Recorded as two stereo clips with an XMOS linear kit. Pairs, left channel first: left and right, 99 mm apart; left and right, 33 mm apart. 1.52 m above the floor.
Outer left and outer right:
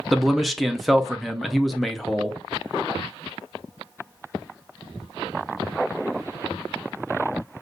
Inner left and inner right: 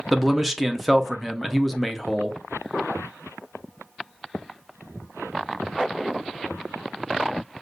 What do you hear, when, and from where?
0.1 s a man speaking: centre (ahead or behind), 0.6 m